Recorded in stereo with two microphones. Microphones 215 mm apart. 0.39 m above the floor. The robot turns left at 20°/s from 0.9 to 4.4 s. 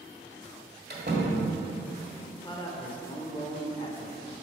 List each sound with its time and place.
0.9 s a door slam: 50° right (ahead or behind), 1.5 m; by 1.5 s 45° right (ahead or behind), 1.5 m
2.3 s a man speaking: 20° left (ahead or behind), 0.9 m